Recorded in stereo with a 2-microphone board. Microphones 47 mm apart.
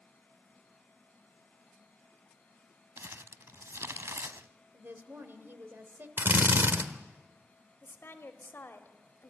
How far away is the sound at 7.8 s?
About 1.9 m.